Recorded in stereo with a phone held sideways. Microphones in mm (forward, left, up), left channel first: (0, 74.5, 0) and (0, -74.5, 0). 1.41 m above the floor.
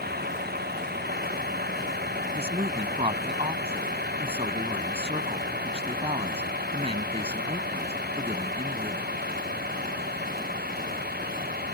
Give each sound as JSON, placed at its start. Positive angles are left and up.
{"t": 0.0, "sound": "a vehicle", "side_deg": -80}
{"t": 2.4, "sound": "a woman speaking", "side_deg": -40}